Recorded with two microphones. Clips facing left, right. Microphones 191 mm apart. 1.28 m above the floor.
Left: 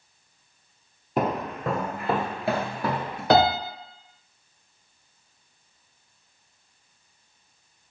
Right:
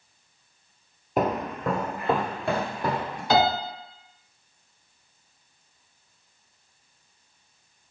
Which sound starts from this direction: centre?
Footsteps, at 1.2 s.